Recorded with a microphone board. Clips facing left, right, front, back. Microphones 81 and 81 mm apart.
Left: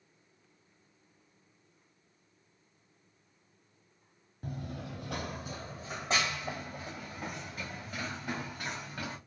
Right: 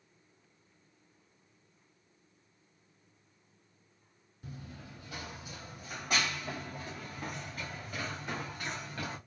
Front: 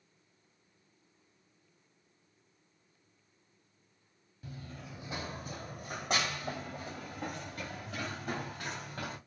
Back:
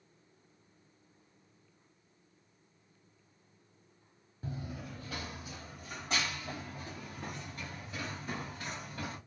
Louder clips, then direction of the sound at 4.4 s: Left 7 dB, back 5 dB; 120° left.